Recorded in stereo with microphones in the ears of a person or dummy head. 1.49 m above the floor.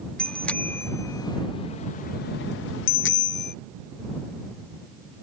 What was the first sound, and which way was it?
A bicycle bell, 5° left (ahead or behind).